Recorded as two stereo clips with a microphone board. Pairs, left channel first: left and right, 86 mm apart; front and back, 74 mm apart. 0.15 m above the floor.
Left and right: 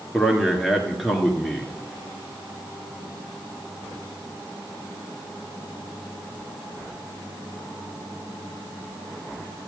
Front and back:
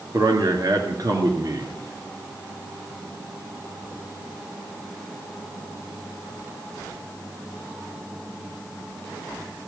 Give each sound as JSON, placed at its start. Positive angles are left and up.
{"t": 0.1, "sound": "a man speaking", "azimuth_deg": -175, "distance_m": 2.5}